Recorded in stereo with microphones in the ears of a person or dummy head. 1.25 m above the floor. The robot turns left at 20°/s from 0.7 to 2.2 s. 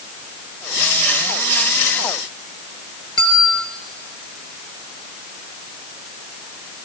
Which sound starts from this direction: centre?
A bell, at 3.2 s.